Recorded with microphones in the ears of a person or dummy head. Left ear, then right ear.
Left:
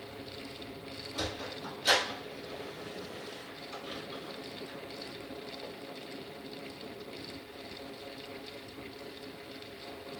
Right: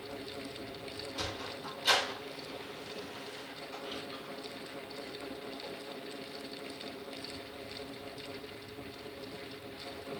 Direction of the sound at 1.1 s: 10° left (ahead or behind).